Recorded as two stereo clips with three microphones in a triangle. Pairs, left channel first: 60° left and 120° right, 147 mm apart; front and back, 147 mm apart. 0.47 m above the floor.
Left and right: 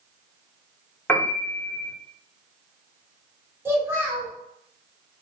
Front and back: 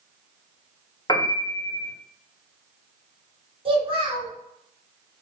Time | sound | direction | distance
1.1 | a piano | straight ahead | 0.6 m
3.6 | a child speaking | 175° left | 1.0 m